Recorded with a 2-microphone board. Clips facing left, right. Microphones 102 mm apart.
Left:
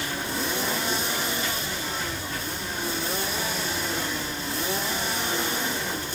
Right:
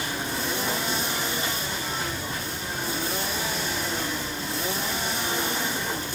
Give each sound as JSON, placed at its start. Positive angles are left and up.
{"t": 0.0, "sound": "running water", "side_deg": -20, "distance_m": 4.5}